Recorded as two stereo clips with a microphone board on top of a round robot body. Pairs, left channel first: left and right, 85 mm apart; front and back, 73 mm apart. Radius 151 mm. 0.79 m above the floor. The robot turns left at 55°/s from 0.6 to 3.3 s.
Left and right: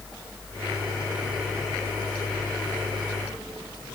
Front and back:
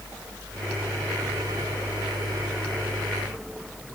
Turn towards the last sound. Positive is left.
No sound to turn to.